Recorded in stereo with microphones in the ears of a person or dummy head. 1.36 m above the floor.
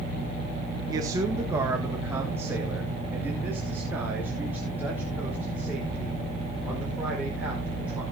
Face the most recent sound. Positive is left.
turn(degrees=-5)  # may be behind; listen again after turning